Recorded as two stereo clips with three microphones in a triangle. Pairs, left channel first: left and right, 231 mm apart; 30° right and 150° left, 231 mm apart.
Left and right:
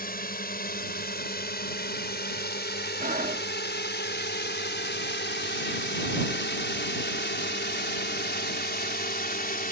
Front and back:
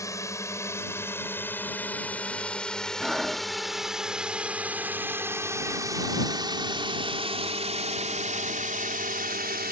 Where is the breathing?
125° right.